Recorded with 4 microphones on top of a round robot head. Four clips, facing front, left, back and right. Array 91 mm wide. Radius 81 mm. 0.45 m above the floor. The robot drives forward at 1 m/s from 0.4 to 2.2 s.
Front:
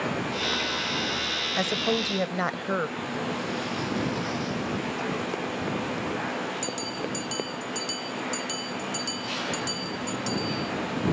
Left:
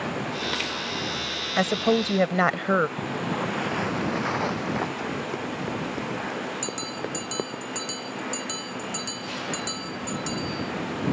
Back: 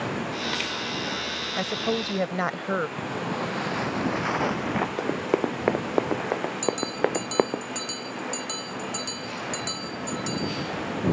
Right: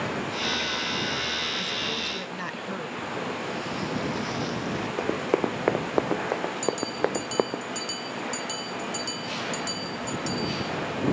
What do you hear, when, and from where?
1.6 s a woman speaking: 85° left; by 2.9 s 95° left
3.0 s footsteps: 115° left; by 4.9 s 150° left
5.0 s running footsteps: 135° right; by 7.6 s 165° right
6.6 s a bell: 135° left